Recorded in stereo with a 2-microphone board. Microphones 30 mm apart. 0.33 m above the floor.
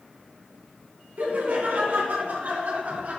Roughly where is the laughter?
Right.